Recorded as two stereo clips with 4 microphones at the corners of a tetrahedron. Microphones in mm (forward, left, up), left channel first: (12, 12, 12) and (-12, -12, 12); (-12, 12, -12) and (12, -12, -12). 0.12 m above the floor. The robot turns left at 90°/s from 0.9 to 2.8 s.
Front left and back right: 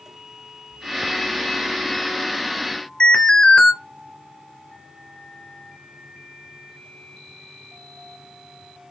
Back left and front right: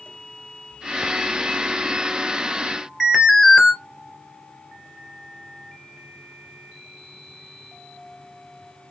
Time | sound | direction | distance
3.0 | an alarm | 25° left | 2 m